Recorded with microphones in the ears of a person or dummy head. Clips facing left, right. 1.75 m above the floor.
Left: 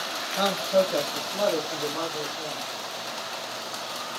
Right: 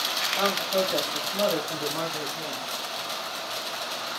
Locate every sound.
0.4 s a man speaking: 30° left (ahead or behind), 0.7 m; by 2.7 s 35° right (ahead or behind), 1.3 m